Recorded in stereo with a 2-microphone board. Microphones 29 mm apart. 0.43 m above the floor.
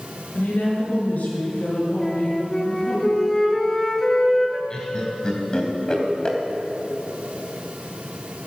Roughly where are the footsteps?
I don't hear footsteps.